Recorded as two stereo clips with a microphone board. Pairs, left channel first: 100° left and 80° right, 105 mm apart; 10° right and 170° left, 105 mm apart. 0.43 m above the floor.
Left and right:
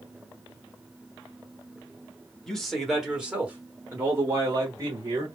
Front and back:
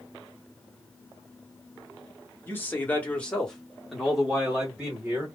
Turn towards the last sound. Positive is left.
turn(degrees=-120)